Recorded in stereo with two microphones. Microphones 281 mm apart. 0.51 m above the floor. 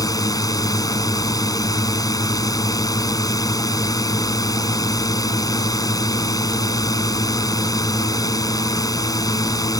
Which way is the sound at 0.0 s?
10° left (ahead or behind).